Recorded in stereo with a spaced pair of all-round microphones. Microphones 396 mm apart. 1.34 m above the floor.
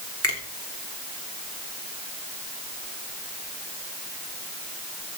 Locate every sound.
0.2 s a finger snap: 35° left (ahead or behind), 3 m